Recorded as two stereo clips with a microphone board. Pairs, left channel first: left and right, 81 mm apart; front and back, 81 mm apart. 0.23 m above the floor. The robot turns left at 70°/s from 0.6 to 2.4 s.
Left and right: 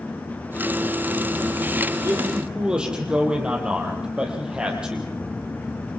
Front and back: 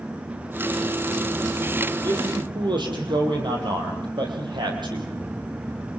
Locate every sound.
2.0 s a man speaking: 140° right, 6 m; by 5.1 s 165° right, 6 m